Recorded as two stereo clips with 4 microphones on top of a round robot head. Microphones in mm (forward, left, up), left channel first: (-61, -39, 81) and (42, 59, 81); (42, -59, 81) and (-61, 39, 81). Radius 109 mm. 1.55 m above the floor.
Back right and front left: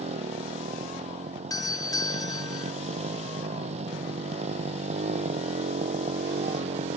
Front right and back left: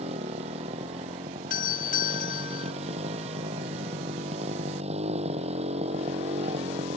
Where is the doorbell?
70° right.